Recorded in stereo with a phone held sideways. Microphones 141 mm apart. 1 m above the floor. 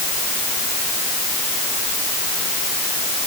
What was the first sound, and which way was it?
Only background noise.